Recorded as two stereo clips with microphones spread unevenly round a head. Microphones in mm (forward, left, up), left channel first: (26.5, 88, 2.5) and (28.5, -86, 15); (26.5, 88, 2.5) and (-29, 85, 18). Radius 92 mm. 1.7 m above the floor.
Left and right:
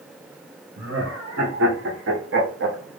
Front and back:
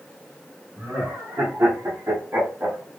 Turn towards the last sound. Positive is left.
turn(degrees=-110)